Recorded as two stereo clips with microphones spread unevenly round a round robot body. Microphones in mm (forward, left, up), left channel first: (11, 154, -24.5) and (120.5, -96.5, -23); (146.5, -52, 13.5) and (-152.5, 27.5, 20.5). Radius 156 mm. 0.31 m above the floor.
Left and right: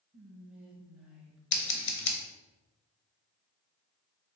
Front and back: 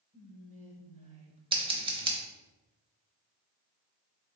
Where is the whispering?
155° right, 1.0 m.